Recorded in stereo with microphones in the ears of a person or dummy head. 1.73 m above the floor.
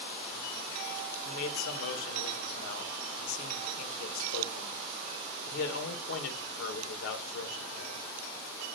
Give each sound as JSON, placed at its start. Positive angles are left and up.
{"t": 1.2, "sound": "a man speaking", "side_deg": 80, "distance_m": 1.5}